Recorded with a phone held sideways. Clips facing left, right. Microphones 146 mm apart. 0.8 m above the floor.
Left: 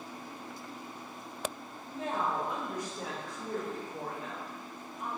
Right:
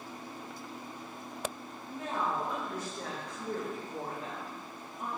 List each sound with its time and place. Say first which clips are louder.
1.9 s a woman speaking: left 1 dB; 35° left (ahead or behind), 1.7 m; by 5.1 s 55° right (ahead or behind), 1.3 m